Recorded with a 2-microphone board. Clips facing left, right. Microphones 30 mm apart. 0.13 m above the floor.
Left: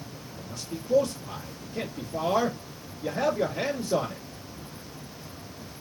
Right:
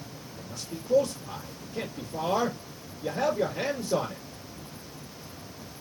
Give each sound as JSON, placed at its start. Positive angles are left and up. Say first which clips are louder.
{"t": 0.4, "sound": "a man speaking", "louder": "left 2 dB", "side_deg": 20, "distance_m": 3.0}